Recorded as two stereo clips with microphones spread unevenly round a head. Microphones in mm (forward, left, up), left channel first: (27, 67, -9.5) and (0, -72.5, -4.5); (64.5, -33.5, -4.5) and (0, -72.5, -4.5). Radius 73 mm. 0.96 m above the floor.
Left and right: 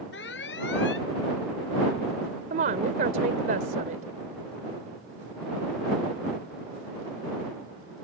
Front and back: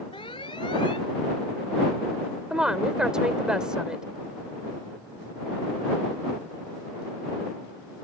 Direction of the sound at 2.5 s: 70° right.